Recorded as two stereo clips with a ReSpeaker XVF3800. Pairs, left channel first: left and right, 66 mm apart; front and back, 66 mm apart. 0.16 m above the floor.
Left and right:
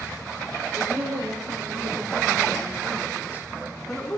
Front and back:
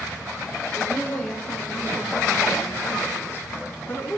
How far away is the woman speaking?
About 5 m.